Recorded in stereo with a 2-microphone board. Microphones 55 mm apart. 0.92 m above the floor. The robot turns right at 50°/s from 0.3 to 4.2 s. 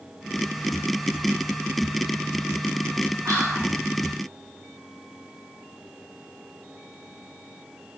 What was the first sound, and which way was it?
Whispering, 65° right (ahead or behind).